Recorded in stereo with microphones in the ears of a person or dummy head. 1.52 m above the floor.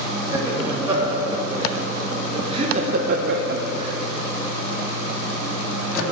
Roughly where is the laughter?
Centre.